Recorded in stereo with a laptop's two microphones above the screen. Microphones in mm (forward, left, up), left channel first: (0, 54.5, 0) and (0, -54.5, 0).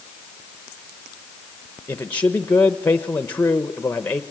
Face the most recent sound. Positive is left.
turn(degrees=15)  # may be behind; listen again after turning